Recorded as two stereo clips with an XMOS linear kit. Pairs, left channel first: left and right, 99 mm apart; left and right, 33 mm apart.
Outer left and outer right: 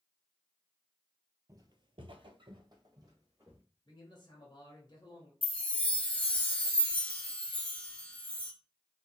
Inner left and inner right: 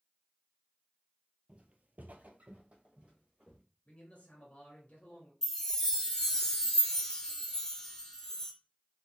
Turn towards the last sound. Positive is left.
turn(degrees=15)  # may be behind; listen again after turning